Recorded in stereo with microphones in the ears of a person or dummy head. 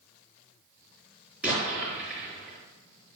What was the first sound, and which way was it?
An explosion, 10° right (ahead or behind).